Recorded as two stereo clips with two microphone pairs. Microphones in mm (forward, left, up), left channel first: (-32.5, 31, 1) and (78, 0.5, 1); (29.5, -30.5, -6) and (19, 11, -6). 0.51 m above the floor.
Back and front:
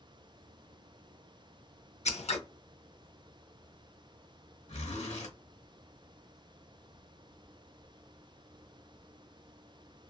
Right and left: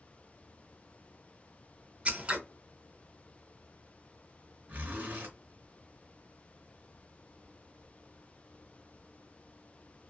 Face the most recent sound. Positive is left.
turn(degrees=150)